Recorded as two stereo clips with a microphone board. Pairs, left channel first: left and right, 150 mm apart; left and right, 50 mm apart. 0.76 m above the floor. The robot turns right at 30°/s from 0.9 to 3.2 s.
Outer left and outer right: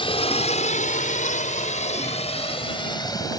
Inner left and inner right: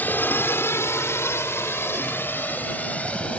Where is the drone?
35° left (ahead or behind); by 3.4 s 25° left (ahead or behind).